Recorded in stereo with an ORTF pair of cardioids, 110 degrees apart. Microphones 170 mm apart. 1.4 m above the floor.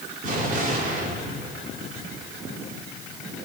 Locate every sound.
0.2 s an explosion: 55° right, 4 m